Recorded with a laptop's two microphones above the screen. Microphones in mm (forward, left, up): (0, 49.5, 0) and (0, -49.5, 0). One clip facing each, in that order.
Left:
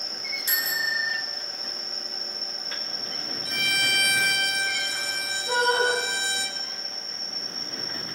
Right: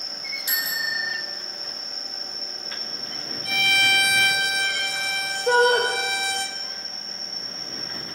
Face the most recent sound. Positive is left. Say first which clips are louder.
# right 6 dB
turn(degrees=-85)